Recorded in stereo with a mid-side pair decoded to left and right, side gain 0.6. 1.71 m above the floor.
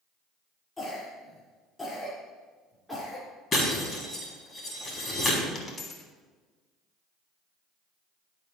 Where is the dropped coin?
35° left, 3 m.